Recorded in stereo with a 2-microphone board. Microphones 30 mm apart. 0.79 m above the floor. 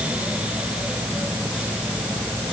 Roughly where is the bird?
No bird in this recording.